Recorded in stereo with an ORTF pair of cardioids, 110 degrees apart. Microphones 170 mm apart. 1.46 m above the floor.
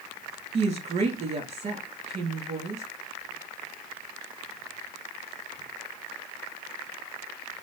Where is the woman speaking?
45° right, 2 m.